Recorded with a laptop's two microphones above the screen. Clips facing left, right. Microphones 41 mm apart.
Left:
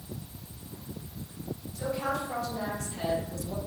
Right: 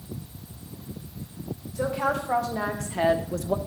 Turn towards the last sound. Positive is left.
turn(degrees=-55)  # may be behind; listen again after turning